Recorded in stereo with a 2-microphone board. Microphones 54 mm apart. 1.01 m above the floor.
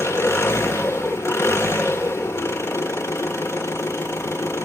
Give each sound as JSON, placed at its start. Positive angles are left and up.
{"t": 0.0, "sound": "an engine running", "side_deg": 55, "distance_m": 1.1}